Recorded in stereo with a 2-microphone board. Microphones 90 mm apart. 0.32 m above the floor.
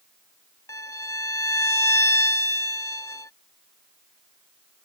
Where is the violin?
35° left (ahead or behind).